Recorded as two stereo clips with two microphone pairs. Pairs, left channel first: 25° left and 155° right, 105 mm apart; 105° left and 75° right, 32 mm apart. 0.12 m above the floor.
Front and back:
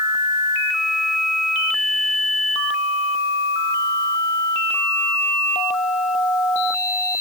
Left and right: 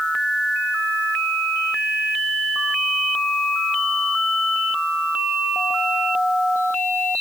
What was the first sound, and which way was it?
Only background noise.